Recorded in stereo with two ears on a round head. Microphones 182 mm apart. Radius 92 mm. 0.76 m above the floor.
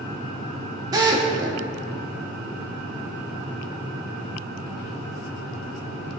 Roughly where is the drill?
Centre.